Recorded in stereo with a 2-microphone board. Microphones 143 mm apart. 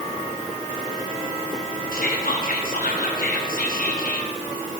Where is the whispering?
70° left (ahead or behind), 1.0 m.